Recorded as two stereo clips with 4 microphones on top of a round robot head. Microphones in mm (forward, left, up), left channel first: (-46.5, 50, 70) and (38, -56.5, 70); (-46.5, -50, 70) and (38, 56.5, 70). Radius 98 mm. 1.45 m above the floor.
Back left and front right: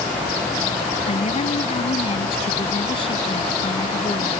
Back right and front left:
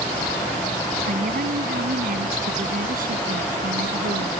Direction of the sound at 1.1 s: 80° left.